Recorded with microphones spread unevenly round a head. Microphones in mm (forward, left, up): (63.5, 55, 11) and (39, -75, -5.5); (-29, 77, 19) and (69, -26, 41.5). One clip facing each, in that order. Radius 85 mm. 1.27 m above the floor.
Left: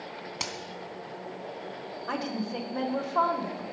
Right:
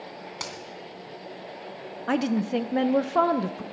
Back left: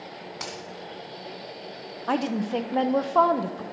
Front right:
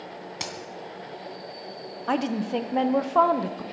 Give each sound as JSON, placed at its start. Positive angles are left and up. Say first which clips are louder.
{"t": 0.4, "sound": "a crack", "louder": "even, front right 1 dB", "azimuth_deg": 10, "distance_m": 3.0}
{"t": 2.1, "sound": "a woman speaking", "louder": "right 8 dB, even", "azimuth_deg": -140, "distance_m": 0.8}